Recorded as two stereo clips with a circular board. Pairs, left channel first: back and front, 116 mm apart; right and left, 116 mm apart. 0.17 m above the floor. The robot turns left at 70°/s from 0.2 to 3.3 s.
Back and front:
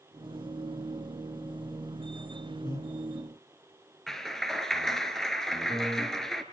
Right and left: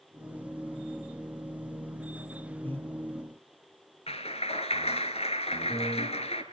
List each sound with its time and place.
2.6 s breathing: 155° right, 1.9 m; by 2.9 s 170° right, 1.9 m
4.1 s a clap: 95° right, 1.9 m